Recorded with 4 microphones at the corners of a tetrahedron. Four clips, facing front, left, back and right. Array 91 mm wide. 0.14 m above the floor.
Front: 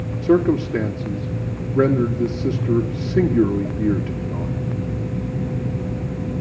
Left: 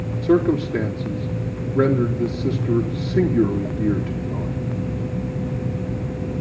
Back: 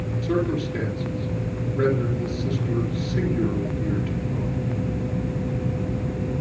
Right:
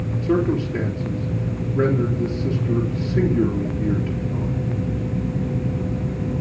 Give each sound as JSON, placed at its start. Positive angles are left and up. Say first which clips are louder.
{"t": 0.2, "sound": "a man speaking", "louder": "left 3 dB, front 8 dB", "azimuth_deg": 35, "distance_m": 3.5}